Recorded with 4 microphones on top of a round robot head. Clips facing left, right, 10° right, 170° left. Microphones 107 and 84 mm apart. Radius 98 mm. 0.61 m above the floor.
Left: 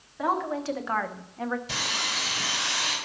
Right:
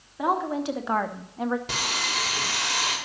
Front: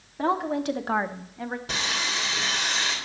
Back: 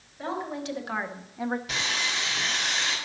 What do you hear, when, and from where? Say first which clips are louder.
0.2 s a woman speaking: right 2 dB, front 7 dB; 15° right, 1.7 m; by 1.6 s 155° right, 0.8 m
1.7 s sawing: right 3 dB, front 1 dB; 65° right, 3.5 m